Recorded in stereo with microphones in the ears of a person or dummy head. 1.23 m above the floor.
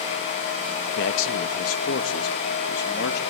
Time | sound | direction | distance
1.0 | a man speaking | 70° left (ahead or behind) | 1.6 m